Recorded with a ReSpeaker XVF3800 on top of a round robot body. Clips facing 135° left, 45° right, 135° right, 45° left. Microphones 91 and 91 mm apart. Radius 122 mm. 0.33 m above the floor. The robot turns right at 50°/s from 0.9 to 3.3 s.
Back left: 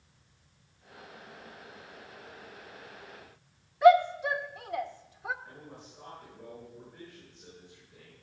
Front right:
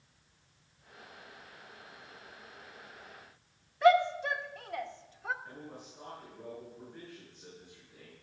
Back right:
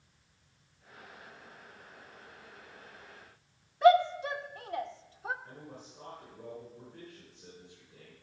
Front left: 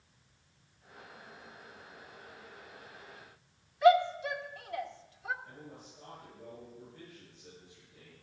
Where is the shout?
150° right, 1.2 m.